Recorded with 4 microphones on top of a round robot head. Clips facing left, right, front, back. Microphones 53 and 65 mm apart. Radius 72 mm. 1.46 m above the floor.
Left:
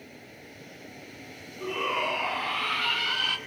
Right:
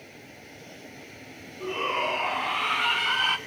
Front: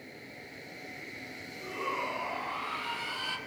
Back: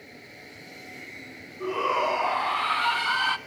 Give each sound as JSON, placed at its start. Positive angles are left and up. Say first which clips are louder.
{"t": 1.6, "sound": "a shout", "louder": "right 1 dB, back 10 dB", "azimuth_deg": 175, "distance_m": 1.7}